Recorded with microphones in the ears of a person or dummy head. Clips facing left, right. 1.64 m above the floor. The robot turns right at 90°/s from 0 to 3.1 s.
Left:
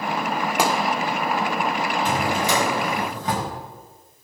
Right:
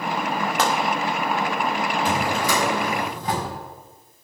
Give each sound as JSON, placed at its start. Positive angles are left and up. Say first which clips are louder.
{"t": 0.6, "sound": "a gunshot", "louder": "left 1 dB", "side_deg": 10, "distance_m": 0.7}
{"t": 2.0, "sound": "a drawer", "louder": "left 1 dB", "azimuth_deg": -10, "distance_m": 4.0}